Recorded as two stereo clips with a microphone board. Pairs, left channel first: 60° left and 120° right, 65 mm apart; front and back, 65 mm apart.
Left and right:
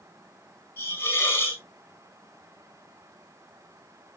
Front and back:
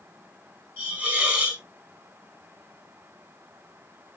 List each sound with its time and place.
0.8 s a hiss: 115° left, 3.5 m